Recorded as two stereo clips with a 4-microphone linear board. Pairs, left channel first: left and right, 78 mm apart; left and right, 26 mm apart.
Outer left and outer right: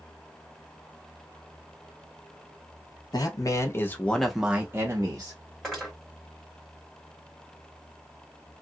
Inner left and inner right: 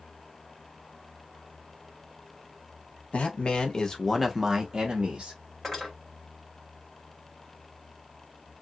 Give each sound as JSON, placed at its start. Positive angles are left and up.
{"t": 3.1, "sound": "a man speaking", "side_deg": 55, "distance_m": 1.1}
{"t": 5.6, "sound": "cutlery clinking", "side_deg": 0, "distance_m": 2.0}